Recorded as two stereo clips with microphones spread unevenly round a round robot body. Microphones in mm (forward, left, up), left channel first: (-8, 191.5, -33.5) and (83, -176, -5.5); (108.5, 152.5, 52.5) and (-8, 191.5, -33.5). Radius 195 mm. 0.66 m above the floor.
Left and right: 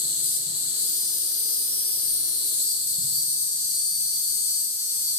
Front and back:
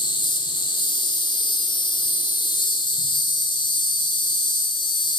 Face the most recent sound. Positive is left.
turn(degrees=50)